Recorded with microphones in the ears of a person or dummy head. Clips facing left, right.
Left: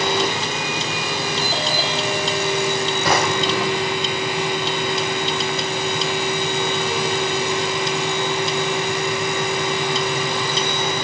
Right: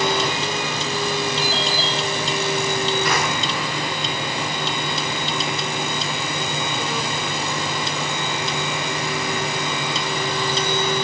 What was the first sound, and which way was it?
A fan, 55° left (ahead or behind).